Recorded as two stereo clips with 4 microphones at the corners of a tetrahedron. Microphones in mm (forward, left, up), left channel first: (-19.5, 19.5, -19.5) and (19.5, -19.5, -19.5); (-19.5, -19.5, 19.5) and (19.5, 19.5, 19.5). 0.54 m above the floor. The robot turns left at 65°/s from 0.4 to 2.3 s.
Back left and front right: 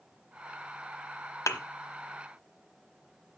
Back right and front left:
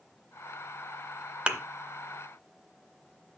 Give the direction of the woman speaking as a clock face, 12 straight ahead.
I don't hear a woman speaking.